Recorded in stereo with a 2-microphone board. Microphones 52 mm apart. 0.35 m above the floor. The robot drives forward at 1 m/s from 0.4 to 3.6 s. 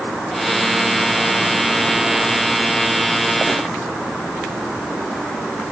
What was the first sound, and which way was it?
Only background noise.